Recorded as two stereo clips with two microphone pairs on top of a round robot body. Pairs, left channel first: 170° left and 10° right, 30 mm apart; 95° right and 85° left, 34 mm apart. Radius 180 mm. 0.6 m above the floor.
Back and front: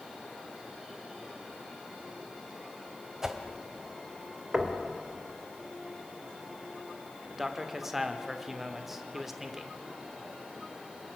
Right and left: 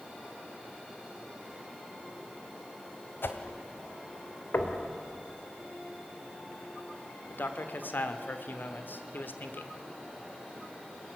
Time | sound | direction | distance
3.2 | a whoosh | 85° right | 1.8 m
4.5 | knocking | 85° right | 3 m
7.3 | a man speaking | 90° right | 2.5 m